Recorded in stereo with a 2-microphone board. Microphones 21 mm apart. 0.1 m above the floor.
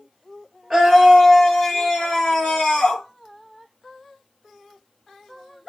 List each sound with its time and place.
0.7 s a scream: 10° right (ahead or behind), 1.7 m; by 3.0 s 40° left (ahead or behind), 3 m